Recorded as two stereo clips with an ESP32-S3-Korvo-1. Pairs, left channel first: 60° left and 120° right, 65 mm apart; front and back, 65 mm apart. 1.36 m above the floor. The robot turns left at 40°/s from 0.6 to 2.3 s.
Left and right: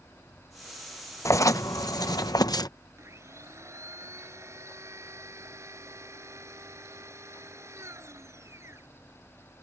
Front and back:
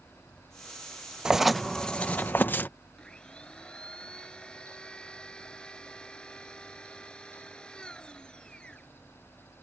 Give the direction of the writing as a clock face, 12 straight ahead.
9 o'clock.